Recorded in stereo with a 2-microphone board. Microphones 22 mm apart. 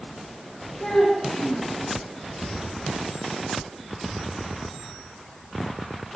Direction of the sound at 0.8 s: 25° left (ahead or behind).